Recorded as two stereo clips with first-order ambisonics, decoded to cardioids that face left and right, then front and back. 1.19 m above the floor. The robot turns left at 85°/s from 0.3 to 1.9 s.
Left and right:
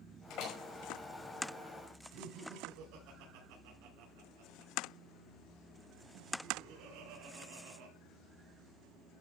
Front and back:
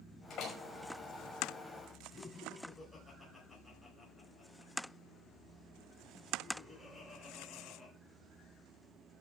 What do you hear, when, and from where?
0.3 s a door slam: 65° left, 5 m; by 0.6 s 40° left, 5 m
2.1 s laughter: 80° right, 5 m